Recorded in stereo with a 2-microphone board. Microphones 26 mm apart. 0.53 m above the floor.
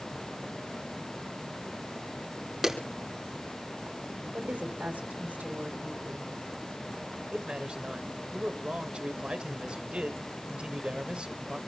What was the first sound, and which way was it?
A clap, 10° right (ahead or behind).